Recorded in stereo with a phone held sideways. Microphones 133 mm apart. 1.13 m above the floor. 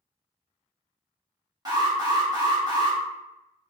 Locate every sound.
1.6 s an alarm: 30° right (ahead or behind), 1.2 m